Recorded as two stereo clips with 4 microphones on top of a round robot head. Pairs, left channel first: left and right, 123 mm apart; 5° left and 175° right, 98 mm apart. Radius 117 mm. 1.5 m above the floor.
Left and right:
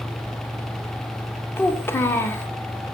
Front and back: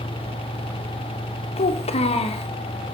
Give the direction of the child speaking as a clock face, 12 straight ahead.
11 o'clock.